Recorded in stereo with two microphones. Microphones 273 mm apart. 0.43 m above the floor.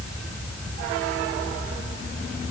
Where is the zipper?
No zipper in this recording.